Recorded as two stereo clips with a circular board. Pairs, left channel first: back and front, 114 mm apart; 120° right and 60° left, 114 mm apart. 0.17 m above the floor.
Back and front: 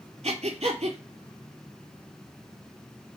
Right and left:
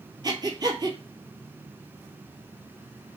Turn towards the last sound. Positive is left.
turn(degrees=10)